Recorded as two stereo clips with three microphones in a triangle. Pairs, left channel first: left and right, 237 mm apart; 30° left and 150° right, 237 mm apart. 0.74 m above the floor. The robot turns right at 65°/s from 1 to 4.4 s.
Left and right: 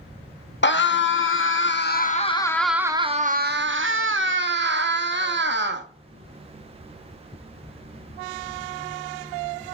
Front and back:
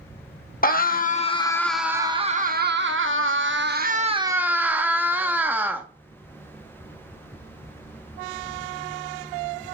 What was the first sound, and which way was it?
A scream, 70° left.